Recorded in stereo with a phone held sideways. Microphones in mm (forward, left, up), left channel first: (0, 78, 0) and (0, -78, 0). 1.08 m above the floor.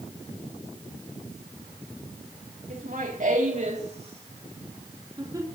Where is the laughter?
70° right (ahead or behind), 2.5 m; by 5.5 s 25° right (ahead or behind), 3.5 m.